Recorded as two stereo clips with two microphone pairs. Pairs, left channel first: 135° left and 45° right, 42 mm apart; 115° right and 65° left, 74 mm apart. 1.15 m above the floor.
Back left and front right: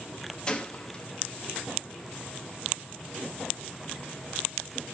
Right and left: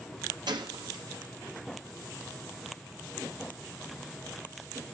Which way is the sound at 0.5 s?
65° left.